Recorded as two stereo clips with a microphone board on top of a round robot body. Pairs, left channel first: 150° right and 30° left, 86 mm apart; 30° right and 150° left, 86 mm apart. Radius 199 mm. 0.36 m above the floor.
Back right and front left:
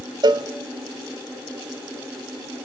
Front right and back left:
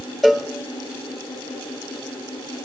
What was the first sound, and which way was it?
A cowbell, 60° left.